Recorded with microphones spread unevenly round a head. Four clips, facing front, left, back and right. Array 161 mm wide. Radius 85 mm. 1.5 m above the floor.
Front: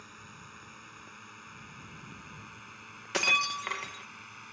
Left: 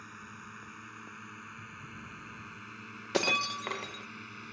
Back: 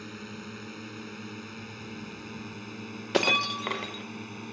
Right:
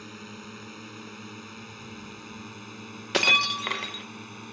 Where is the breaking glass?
175° right.